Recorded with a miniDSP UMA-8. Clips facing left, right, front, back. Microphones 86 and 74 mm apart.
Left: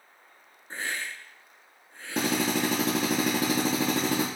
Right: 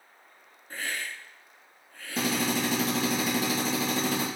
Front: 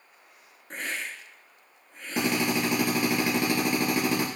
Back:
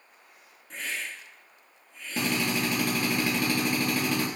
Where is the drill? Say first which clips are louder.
Left 2 dB, front 2 dB; 70° left, 3.5 m.